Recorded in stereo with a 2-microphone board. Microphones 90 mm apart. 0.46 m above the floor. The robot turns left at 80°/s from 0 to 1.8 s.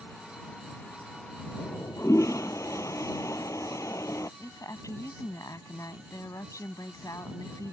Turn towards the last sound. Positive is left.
turn(degrees=40)  # may be behind; listen again after turning